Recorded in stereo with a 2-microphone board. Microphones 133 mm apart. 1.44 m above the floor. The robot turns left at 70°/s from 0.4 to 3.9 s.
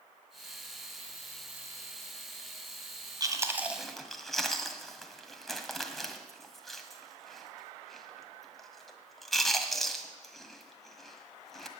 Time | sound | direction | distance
3.2 | chewing | 30° right (ahead or behind) | 1.6 m